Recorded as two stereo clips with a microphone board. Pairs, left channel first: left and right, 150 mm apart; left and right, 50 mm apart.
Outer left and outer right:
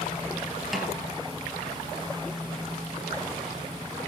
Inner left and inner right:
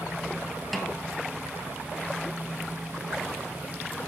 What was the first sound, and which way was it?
A snare drum, centre (ahead or behind).